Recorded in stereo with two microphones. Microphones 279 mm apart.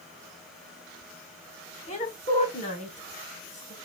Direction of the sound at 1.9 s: 25° left (ahead or behind).